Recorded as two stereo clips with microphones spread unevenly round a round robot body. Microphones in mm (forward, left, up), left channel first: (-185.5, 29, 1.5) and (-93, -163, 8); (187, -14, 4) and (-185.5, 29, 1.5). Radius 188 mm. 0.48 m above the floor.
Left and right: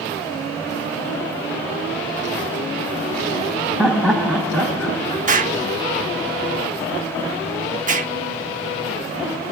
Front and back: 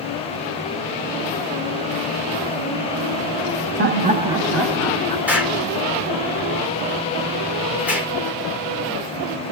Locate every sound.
3.8 s laughter: 150° right, 1.0 m; by 5.2 s 45° left, 0.9 m
5.3 s an explosion: 100° right, 1.1 m